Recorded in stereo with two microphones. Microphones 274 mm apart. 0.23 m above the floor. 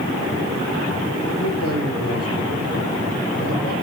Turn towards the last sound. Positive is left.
turn(degrees=55)  # may be behind; listen again after turning